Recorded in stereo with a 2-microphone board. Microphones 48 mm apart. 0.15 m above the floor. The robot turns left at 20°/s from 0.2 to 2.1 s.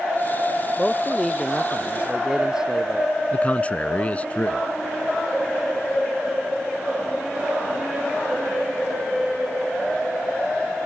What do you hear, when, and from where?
0.8 s a man speaking: 10° left (ahead or behind); by 3.1 s 15° right (ahead or behind)
3.3 s a man speaking: 30° left (ahead or behind)